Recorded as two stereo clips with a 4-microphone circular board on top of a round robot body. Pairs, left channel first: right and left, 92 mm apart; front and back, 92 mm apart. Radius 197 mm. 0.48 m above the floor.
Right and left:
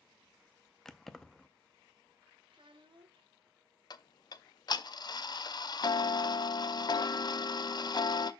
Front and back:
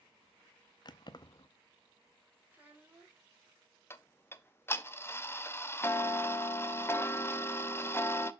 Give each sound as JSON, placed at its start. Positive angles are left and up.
{"t": 0.8, "sound": "keys jangling", "azimuth_deg": -5, "distance_m": 0.7}
{"t": 2.5, "sound": "a child speaking", "azimuth_deg": 110, "distance_m": 1.6}
{"t": 3.9, "sound": "ticking", "azimuth_deg": -60, "distance_m": 0.7}